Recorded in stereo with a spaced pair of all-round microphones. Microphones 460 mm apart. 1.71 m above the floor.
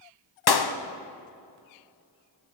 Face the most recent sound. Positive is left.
turn(degrees=55)  # may be behind; listen again after turning